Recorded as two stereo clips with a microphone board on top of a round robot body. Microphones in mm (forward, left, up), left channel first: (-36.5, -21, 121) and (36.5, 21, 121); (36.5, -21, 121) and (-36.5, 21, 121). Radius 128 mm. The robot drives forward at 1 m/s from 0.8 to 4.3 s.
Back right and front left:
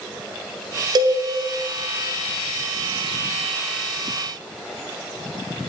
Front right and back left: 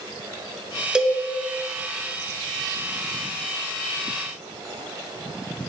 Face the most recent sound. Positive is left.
turn(degrees=170)